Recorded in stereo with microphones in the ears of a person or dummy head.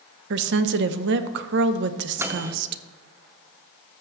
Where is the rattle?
I don't hear a rattle.